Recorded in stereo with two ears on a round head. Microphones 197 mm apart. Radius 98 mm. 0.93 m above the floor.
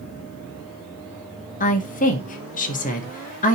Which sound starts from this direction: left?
A woman speaking, at 1.6 s.